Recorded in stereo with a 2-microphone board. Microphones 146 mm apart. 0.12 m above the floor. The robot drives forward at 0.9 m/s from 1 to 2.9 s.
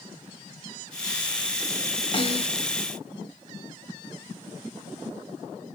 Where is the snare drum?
35° left (ahead or behind), 1.4 m.